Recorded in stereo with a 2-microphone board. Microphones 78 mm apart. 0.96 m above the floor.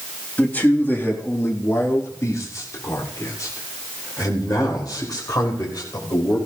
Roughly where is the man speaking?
Left.